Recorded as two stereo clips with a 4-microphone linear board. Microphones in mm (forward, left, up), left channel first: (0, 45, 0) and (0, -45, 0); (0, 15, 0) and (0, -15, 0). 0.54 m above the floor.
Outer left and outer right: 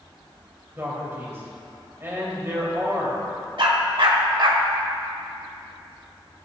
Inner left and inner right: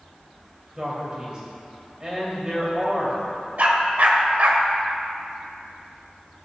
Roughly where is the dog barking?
Right.